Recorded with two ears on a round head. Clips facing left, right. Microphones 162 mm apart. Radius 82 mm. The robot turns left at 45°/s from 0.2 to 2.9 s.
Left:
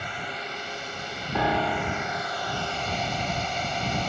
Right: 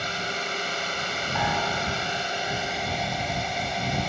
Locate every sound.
0.0 s a drone: 55° right; by 4.1 s 175° right
1.4 s a piano: 130° left; by 2.4 s 85° left